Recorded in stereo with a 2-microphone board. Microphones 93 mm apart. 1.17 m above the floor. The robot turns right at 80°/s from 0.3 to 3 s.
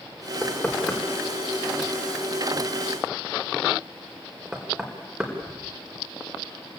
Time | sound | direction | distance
0.4 | knocking | 20° right (ahead or behind) | 4.5 m